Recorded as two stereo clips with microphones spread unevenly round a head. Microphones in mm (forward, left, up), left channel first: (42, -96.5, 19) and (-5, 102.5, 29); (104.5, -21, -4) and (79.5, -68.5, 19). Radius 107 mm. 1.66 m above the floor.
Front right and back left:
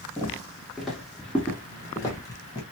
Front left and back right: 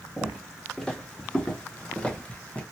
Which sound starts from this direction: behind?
Footsteps, at 0.2 s.